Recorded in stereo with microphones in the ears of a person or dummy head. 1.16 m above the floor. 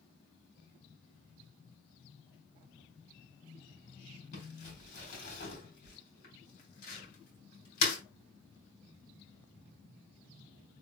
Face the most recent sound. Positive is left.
turn(degrees=55)  # may be behind; listen again after turning